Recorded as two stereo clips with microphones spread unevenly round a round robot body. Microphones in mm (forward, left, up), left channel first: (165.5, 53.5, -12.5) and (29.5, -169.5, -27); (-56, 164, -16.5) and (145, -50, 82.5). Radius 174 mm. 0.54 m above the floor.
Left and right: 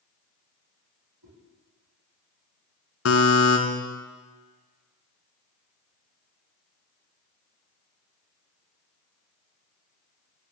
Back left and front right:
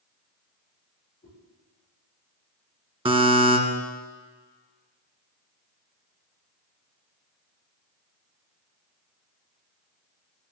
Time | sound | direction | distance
1.2 | a whoosh | 150° right | 9 m
3.0 | a buzzer | 25° left | 2.5 m